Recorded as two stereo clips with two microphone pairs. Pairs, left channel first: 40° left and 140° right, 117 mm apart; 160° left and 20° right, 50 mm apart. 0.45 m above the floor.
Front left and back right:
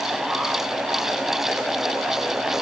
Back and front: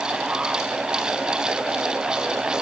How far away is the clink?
I don't hear a clink.